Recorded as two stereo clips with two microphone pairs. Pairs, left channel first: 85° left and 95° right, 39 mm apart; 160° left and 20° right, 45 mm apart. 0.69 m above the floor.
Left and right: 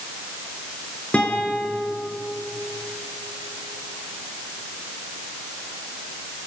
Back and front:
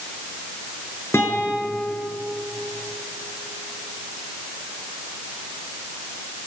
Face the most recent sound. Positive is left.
turn(degrees=140)